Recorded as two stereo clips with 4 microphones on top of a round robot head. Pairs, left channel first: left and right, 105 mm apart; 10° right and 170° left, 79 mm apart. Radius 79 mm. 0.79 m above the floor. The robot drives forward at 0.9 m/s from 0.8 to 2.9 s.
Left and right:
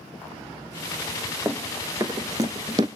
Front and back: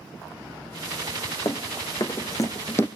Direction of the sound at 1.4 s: 20° right.